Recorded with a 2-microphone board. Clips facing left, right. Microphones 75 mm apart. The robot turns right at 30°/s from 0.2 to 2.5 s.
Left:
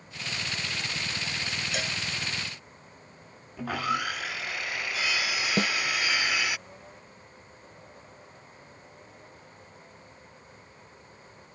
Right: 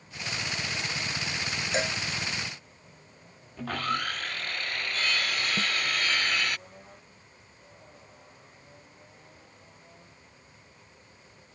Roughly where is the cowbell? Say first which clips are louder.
Right 6 dB; right.